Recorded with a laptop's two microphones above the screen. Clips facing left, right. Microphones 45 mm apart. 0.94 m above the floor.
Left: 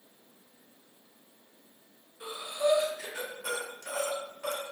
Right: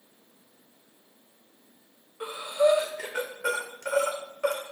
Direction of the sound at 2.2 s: 65° right (ahead or behind).